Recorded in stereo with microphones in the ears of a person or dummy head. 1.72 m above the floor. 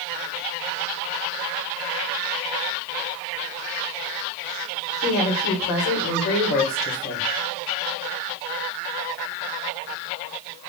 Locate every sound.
5.0 s a woman speaking: 55° left (ahead or behind), 1.6 m